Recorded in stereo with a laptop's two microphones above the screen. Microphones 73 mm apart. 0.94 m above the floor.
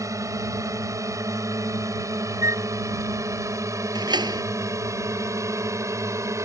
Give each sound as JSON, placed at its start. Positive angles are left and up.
{"t": 0.0, "sound": "a drone", "side_deg": -50}
{"t": 2.4, "sound": "a flute", "side_deg": -45}
{"t": 4.0, "sound": "a door slam", "side_deg": -85}